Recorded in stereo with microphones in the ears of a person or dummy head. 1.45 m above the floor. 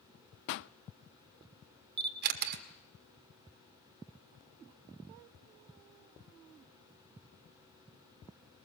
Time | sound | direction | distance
0.5 | a pop | 55° left (ahead or behind) | 0.6 m
2.0 | a camera shutter | 55° right (ahead or behind) | 1.6 m